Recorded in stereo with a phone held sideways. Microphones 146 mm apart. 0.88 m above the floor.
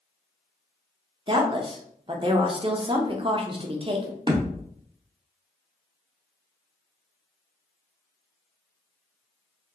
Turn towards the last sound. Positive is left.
turn(degrees=-35)  # may be behind; listen again after turning